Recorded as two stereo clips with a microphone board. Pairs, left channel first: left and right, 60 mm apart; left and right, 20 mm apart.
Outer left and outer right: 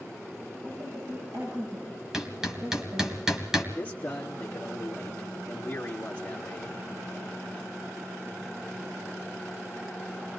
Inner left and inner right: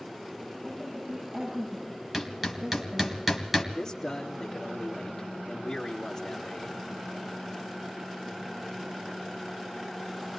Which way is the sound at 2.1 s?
10° right (ahead or behind).